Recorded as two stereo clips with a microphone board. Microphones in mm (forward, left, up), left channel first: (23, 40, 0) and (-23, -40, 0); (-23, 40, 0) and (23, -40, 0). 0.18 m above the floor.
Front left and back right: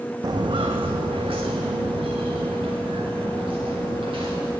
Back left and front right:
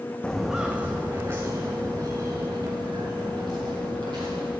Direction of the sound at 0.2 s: 160° right.